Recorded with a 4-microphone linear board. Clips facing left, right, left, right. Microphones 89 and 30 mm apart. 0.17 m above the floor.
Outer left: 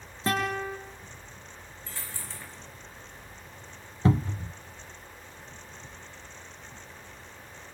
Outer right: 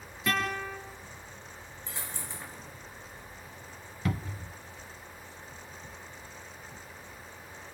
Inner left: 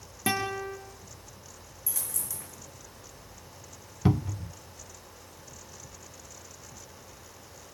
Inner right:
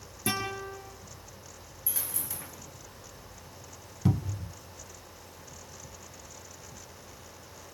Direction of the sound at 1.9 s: 20° right (ahead or behind).